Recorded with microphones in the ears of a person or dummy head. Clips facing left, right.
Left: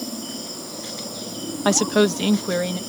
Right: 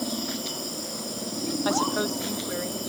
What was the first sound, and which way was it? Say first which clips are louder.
A woman speaking: left 10 dB; 70° left (ahead or behind).